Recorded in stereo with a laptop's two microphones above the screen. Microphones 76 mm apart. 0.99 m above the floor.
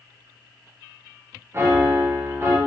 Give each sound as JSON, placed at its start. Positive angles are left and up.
{"t": 1.5, "sound": "a piano", "side_deg": -30, "distance_m": 0.6}